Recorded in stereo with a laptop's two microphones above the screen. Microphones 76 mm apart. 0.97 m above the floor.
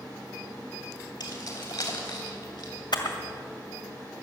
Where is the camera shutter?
70° left (ahead or behind), 1.8 m.